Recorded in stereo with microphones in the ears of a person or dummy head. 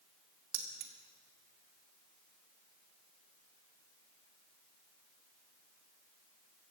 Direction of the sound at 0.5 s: 55° right (ahead or behind).